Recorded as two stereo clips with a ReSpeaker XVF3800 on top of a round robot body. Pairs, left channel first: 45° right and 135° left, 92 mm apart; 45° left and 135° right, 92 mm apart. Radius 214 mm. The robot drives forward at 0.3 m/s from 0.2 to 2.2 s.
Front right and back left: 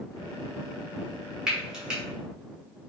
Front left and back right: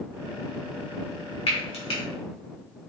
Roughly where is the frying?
Ahead left.